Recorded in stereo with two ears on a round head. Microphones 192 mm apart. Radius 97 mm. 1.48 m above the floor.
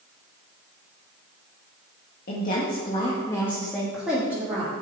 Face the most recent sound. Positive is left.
turn(degrees=-15)  # may be behind; listen again after turning